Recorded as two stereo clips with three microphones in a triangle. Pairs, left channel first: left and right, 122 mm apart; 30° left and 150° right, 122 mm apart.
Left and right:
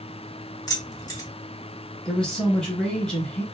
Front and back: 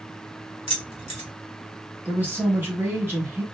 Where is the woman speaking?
165° left, 1.3 m.